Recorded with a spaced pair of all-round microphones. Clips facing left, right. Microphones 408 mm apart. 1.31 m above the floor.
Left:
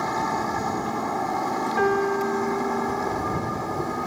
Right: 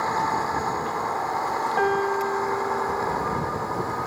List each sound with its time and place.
0.0 s a vehicle: 45° left (ahead or behind)
1.8 s a piano: 20° left (ahead or behind)